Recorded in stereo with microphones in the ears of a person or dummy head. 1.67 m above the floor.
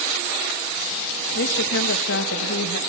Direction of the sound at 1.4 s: 70° left (ahead or behind).